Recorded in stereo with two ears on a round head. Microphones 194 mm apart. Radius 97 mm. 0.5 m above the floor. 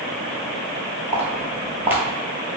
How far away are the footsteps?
About 0.7 m.